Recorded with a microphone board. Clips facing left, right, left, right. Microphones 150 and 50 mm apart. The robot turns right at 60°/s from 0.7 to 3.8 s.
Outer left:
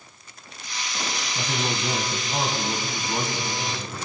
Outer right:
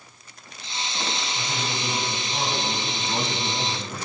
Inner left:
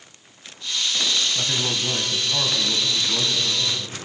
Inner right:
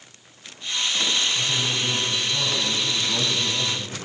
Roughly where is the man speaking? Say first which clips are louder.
Outer left 3 dB, even; left.